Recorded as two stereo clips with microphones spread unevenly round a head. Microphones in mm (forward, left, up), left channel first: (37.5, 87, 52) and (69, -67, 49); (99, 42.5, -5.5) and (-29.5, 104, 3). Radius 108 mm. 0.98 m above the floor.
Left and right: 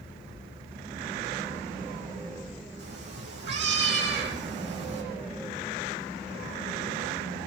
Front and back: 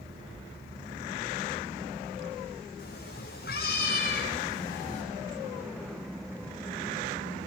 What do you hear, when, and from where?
2.8 s a cat meowing: 75° right, 7.5 m; by 5.0 s 85° right, 7 m